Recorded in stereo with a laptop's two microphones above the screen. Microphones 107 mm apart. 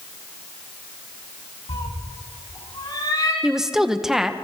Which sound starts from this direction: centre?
A woman speaking, at 3.4 s.